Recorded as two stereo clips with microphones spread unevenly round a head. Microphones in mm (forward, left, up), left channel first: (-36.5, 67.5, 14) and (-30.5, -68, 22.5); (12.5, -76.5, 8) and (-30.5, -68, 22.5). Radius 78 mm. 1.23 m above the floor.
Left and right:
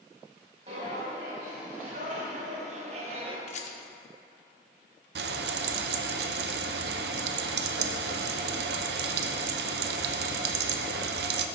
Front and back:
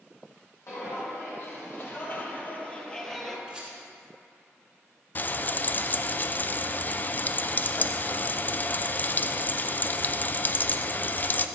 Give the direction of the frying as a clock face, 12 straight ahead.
2 o'clock.